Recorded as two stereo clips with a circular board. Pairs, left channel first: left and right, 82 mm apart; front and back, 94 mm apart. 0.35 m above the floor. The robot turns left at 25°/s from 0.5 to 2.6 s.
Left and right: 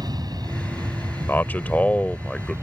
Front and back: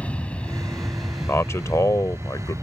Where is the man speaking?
40° left; by 2.5 s 10° left.